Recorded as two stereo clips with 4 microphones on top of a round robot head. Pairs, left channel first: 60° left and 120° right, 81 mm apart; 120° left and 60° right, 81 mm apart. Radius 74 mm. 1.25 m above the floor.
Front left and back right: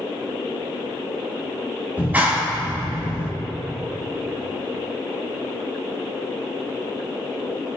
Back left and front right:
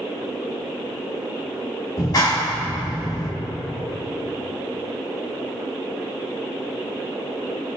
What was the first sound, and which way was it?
A clap, 170° left.